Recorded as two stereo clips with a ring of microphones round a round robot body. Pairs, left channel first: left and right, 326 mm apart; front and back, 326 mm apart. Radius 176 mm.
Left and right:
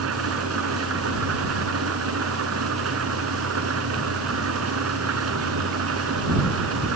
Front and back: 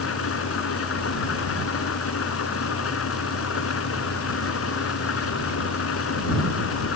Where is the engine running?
45° right.